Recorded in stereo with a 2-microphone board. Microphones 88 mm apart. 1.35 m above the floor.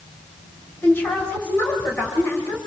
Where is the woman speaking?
20° left (ahead or behind), 6 m.